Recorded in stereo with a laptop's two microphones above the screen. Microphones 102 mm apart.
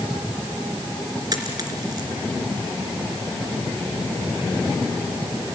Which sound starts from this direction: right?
A dropped coin, at 1.3 s.